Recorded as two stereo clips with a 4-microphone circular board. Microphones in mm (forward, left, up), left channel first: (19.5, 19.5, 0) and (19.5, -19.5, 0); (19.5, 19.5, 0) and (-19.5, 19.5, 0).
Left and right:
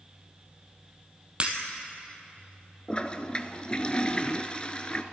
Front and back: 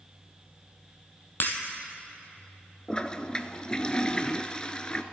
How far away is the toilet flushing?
About 0.5 m.